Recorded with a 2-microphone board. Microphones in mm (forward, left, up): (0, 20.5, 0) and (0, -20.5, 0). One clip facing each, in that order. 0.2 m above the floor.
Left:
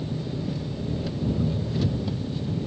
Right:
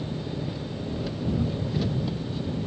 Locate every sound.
0.0 s an engine running: 5° right (ahead or behind)